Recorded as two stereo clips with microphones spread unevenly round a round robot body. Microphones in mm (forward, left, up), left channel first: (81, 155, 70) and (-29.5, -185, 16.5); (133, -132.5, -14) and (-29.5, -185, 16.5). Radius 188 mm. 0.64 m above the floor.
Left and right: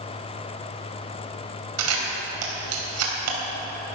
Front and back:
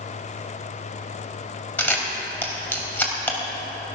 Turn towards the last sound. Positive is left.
turn(degrees=-60)